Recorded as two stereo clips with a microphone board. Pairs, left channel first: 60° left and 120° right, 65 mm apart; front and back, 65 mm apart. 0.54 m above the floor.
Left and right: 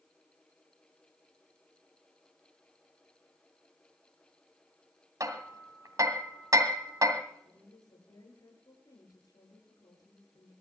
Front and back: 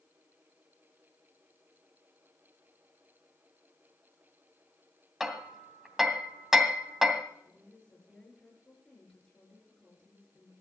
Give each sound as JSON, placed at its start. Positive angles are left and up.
{"t": 5.2, "sound": "hammering", "azimuth_deg": -95, "distance_m": 2.0}
{"t": 7.5, "sound": "a woman speaking", "azimuth_deg": 75, "distance_m": 8.0}